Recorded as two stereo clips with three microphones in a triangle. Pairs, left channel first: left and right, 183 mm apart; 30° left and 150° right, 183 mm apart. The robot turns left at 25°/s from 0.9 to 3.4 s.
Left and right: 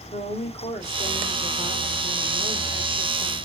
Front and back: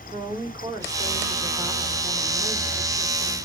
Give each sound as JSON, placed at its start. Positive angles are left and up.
{"t": 0.1, "sound": "a woman speaking", "azimuth_deg": 145, "distance_m": 1.6}